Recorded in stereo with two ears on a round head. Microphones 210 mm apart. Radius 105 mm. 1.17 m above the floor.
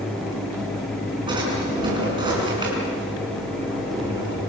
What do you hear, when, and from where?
1.3 s a drawer: 20° right (ahead or behind), 7 m